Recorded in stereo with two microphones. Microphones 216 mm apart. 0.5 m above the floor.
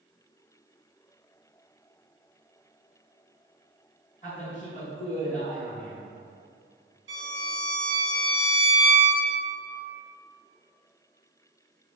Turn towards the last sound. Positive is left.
turn(degrees=-60)  # may be behind; listen again after turning